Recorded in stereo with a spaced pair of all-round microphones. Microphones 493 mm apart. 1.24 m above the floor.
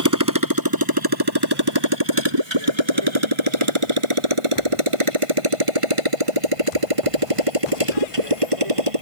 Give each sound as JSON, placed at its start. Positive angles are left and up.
{"t": 0.0, "sound": "a motorcycle", "side_deg": -35}